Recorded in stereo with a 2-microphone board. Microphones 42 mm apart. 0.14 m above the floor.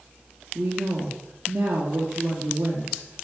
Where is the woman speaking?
70° right (ahead or behind), 3 m.